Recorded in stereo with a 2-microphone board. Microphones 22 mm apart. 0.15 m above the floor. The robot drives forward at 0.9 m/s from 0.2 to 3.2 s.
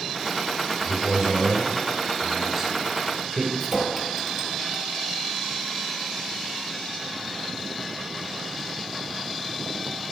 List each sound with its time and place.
0.8 s a man speaking: 15° right (ahead or behind), 1.8 m; by 3.5 s 5° right (ahead or behind), 3.5 m
3.6 s a clink: 10° right (ahead or behind), 2.0 m